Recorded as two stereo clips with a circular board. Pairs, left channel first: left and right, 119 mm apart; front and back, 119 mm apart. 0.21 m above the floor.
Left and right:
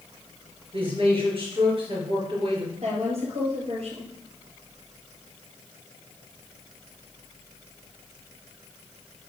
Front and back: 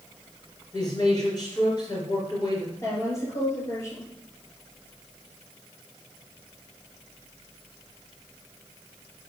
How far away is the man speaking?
About 3.5 m.